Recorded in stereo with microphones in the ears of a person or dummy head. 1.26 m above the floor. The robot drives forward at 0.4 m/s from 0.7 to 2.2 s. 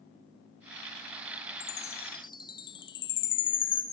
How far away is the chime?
About 0.5 m.